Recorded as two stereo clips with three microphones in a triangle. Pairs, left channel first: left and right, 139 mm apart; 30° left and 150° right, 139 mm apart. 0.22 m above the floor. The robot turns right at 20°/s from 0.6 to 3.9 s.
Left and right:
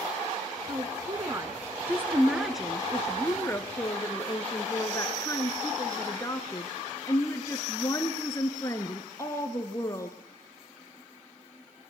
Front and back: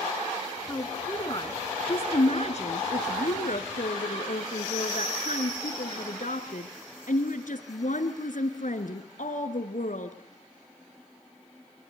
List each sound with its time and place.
0.7 s a woman speaking: 40° right, 2.5 m; by 10.2 s 25° left, 2.5 m